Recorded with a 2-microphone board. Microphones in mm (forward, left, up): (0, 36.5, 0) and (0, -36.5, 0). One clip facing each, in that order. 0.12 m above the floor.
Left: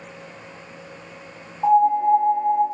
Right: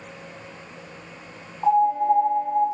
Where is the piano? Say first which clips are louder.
Left 2 dB; 35° left (ahead or behind), 1.9 m.